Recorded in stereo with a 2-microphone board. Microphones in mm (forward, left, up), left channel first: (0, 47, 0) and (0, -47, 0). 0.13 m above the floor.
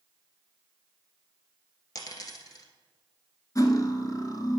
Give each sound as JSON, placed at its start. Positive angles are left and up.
{"t": 1.9, "sound": "a dropped coin", "side_deg": 45, "distance_m": 1.2}
{"t": 3.5, "sound": "cutlery clinking", "side_deg": 45, "distance_m": 0.9}